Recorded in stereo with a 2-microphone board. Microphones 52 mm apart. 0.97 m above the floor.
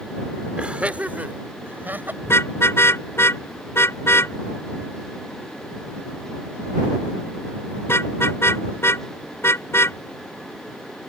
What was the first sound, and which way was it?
Laughter, 20° right (ahead or behind).